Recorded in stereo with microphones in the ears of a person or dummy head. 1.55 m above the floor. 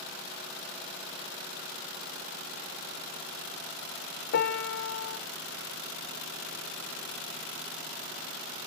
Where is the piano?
55° left (ahead or behind), 1.1 m.